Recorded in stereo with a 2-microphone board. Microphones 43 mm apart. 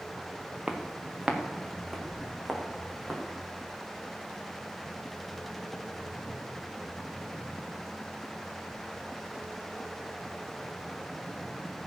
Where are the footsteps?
15° right (ahead or behind), 2 m; by 3.2 s 10° left (ahead or behind), 5.5 m.